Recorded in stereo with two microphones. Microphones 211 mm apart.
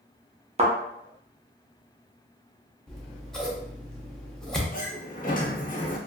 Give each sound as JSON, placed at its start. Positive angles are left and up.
{"t": 0.6, "sound": "a thud", "side_deg": -30, "distance_m": 0.7}
{"t": 2.9, "sound": "scissors", "side_deg": 5, "distance_m": 0.6}
{"t": 4.7, "sound": "a sliding door", "side_deg": 40, "distance_m": 0.6}